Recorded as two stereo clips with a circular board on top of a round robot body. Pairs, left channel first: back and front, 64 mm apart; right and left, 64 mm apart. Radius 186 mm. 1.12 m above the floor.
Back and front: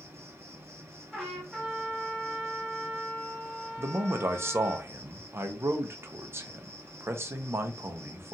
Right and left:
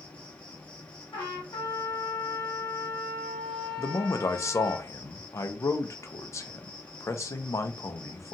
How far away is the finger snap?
No finger snap in this recording.